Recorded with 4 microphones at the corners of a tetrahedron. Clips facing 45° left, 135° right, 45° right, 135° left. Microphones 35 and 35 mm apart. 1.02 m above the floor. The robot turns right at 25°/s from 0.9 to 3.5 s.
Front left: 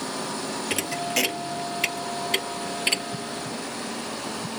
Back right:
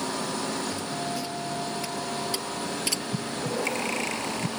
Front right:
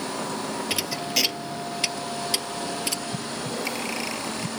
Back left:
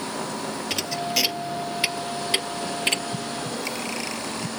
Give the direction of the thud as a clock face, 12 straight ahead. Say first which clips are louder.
Front left 4 dB, back left 2 dB; 11 o'clock.